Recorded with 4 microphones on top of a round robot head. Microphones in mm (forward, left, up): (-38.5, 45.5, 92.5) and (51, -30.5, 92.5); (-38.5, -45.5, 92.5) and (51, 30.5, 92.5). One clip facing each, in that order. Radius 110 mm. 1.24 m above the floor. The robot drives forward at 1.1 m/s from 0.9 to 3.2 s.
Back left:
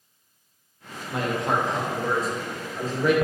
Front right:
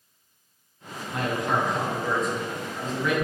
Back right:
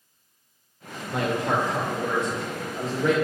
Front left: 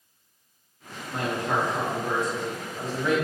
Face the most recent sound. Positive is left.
turn(degrees=-170)